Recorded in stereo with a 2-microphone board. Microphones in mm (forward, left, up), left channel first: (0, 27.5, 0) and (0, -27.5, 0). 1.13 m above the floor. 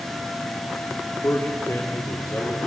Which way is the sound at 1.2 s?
55° left (ahead or behind).